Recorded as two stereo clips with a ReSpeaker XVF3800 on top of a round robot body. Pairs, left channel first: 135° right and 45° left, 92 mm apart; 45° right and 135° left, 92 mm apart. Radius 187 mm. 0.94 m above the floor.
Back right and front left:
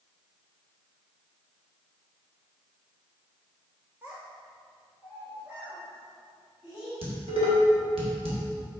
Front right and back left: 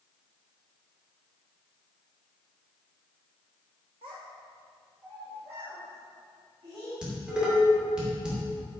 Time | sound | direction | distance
4.0 | a child speaking | 115° left | 0.6 m
7.0 | dishes clattering | 55° left | 2.5 m